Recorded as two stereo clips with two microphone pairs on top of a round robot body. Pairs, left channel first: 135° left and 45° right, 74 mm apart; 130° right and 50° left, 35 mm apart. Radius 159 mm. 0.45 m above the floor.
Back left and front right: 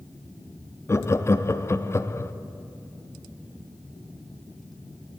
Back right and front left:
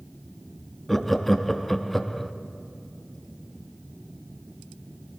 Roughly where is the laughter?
Behind left.